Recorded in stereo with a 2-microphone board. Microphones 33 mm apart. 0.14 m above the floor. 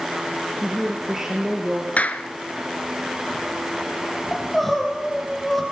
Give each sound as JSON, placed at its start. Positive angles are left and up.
{"t": 0.6, "sound": "a woman speaking", "side_deg": -10, "distance_m": 2.5}
{"t": 2.0, "sound": "a clap", "side_deg": 50, "distance_m": 1.3}
{"t": 4.3, "sound": "crying", "side_deg": 5, "distance_m": 4.5}